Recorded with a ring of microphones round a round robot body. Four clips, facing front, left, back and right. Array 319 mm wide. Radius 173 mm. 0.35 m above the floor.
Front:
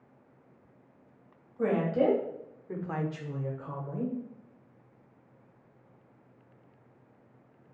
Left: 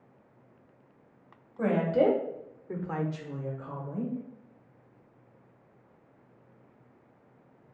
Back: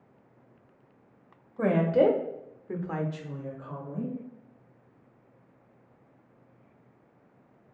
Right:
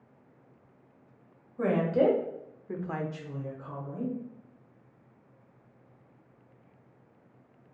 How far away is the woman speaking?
About 1.4 m.